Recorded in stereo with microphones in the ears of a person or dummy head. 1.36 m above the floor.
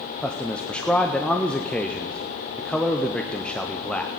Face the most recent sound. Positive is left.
turn(degrees=5)  # may be behind; listen again after turning